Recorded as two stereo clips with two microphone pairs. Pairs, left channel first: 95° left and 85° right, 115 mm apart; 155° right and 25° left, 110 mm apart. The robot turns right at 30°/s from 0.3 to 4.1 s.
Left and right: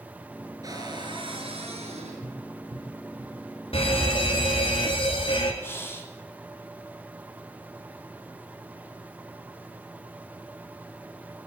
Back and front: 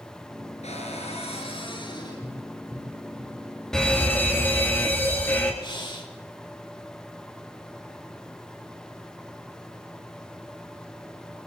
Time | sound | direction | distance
0.6 | a cupboard door | 145° right | 6 m
2.2 | tapping | 60° right | 9.5 m
3.7 | a fire alarm | 125° left | 4 m
5.6 | breathing | 165° left | 3.5 m